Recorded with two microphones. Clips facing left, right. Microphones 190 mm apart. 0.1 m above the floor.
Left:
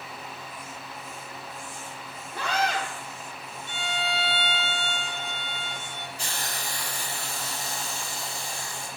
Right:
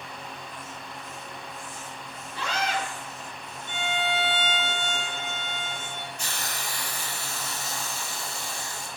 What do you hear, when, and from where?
2.3 s a scream: 55° left (ahead or behind), 6.5 m
3.7 s a violin: 50° right (ahead or behind), 2.5 m
6.2 s a hiss: 30° left (ahead or behind), 5.5 m